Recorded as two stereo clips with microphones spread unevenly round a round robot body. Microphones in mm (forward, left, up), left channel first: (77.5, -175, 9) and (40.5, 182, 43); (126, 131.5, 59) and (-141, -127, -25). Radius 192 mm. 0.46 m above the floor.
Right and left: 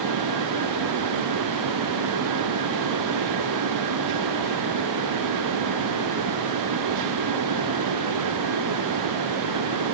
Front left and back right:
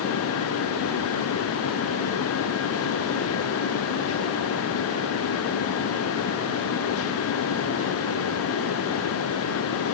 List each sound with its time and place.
Only background noise.